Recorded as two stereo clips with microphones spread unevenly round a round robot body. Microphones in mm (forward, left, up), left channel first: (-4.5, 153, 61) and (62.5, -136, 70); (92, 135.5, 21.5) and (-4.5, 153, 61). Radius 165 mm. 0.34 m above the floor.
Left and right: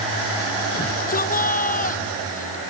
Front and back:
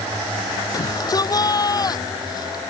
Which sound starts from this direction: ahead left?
A shout, at 0.7 s.